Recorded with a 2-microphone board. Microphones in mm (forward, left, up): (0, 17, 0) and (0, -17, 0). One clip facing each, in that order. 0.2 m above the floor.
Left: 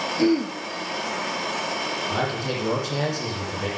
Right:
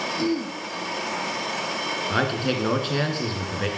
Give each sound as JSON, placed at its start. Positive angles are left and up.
{"t": 0.2, "sound": "throat clearing", "side_deg": 35, "distance_m": 1.6}
{"t": 2.1, "sound": "a man speaking", "side_deg": -40, "distance_m": 2.5}